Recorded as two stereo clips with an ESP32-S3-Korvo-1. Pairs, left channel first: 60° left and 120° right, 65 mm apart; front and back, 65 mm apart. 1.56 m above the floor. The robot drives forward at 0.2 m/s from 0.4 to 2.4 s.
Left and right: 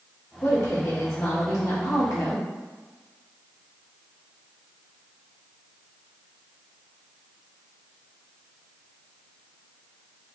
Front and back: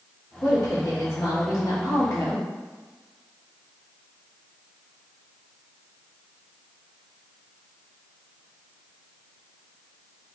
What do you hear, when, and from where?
0.4 s a woman speaking: 30° left, 1.3 m; by 2.5 s 40° left, 0.9 m